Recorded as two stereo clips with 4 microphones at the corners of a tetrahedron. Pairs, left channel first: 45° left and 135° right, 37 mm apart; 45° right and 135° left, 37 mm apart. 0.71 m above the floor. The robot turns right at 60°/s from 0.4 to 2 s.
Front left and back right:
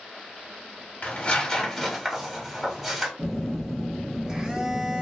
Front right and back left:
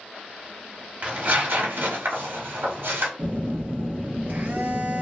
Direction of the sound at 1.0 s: 80° left.